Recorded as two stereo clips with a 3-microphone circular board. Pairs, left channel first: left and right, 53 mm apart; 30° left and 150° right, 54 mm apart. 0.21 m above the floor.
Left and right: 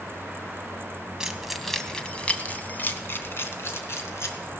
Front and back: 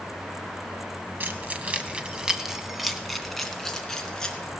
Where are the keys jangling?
160° right, 1.1 m; by 4.5 s 105° left, 2 m.